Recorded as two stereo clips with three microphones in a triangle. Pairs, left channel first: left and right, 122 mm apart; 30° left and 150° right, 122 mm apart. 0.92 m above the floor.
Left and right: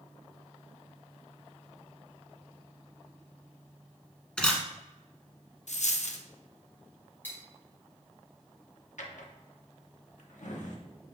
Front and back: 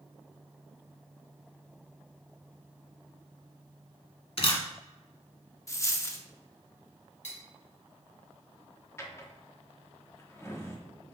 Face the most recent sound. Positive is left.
turn(degrees=95)